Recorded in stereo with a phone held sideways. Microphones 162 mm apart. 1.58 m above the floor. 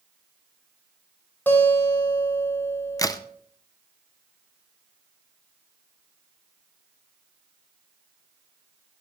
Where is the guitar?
10° left (ahead or behind), 4.5 m.